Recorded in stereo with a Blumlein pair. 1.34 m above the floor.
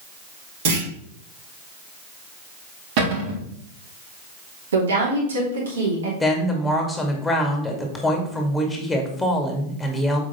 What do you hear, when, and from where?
0.7 s a clunk: 55° right, 3 m
3.0 s a cupboard door: 45° right, 2.5 m
4.7 s a woman speaking: 65° right, 3 m
6.2 s a woman speaking: 5° left, 2 m